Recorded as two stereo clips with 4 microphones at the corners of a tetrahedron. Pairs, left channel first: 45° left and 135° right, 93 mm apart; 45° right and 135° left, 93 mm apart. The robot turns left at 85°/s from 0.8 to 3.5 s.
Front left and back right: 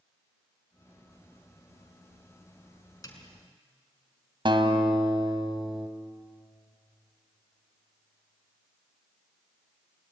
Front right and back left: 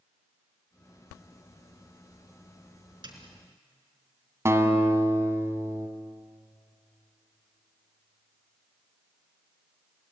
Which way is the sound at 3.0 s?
100° left.